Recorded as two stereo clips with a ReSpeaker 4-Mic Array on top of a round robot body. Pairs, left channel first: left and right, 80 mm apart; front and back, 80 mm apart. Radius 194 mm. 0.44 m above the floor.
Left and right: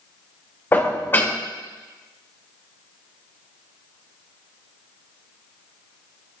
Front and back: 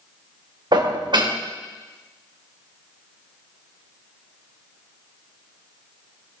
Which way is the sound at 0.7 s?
155° left.